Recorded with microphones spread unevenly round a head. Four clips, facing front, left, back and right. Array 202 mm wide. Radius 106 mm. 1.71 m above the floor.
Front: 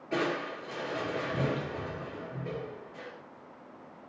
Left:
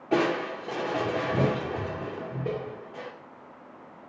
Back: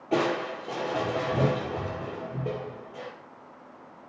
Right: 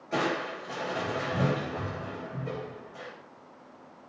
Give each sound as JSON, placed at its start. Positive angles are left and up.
{"t": 0.1, "sound": "crushing", "azimuth_deg": 120, "distance_m": 6.0}